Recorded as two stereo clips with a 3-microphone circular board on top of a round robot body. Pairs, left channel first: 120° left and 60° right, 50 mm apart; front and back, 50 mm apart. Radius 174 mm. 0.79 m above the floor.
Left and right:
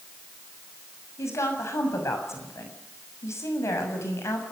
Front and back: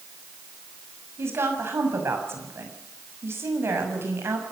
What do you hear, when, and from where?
1.2 s a woman speaking: 140° left, 7 m